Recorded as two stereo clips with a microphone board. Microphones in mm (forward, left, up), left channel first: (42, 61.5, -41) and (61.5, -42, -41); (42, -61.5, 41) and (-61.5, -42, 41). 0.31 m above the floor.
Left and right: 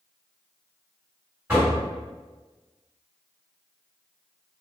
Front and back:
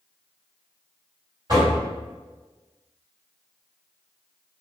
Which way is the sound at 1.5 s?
150° right.